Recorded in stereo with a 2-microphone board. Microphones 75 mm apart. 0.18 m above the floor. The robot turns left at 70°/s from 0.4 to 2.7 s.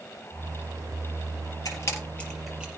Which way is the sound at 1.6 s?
50° left (ahead or behind).